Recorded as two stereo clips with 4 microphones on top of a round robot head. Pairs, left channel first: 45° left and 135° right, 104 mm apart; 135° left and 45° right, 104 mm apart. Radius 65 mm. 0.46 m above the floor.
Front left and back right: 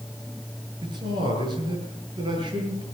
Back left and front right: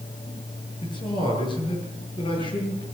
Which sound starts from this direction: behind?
A man speaking, at 0.8 s.